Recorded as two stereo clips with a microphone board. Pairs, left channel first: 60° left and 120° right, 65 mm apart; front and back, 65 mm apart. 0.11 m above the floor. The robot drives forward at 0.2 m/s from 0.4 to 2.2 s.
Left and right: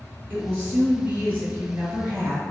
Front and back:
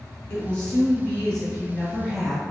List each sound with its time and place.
0.3 s a woman speaking: 65° right, 1.5 m; by 2.4 s 85° right, 1.4 m